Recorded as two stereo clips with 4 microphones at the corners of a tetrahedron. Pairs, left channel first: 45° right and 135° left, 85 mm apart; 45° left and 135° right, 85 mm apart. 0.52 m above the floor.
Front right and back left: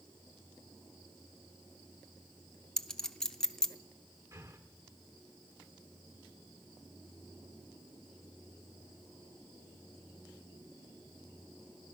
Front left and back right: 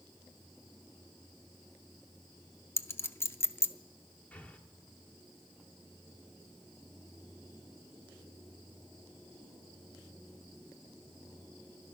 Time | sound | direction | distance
2.8 | a clink | 30° left | 0.6 m
4.3 | breathing | 110° left | 1.2 m